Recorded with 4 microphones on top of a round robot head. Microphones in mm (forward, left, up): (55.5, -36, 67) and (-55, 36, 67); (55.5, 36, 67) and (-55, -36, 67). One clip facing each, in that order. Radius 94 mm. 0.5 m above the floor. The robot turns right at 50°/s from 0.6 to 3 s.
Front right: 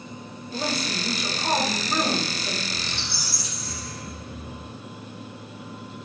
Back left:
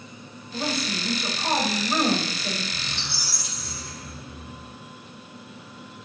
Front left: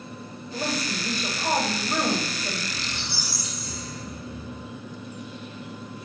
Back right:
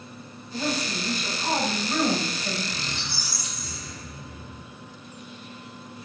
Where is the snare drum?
No snare drum in this recording.